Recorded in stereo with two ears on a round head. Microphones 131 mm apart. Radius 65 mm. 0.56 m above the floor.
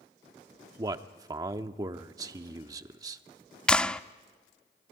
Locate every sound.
0.8 s a man speaking: 25° right (ahead or behind), 0.9 m
3.7 s a clap: 10° left (ahead or behind), 0.5 m